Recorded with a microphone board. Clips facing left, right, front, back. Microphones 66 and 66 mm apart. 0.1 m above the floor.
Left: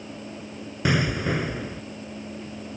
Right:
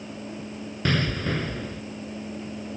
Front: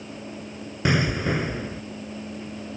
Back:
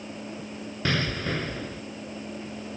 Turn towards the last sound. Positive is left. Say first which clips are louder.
# left 2 dB, front 5 dB
turn(degrees=40)